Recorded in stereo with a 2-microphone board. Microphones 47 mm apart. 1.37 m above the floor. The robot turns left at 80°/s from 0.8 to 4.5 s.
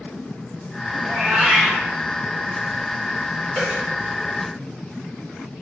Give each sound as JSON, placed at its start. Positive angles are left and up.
{"t": 1.0, "sound": "a cat meowing", "azimuth_deg": -135, "distance_m": 1.1}
{"t": 3.5, "sound": "a dropped coin", "side_deg": -5, "distance_m": 1.8}